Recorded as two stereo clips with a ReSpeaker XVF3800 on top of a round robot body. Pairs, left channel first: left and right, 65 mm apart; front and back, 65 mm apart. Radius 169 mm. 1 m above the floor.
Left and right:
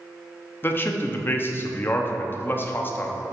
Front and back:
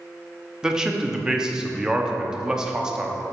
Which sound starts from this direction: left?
A man speaking, at 0.6 s.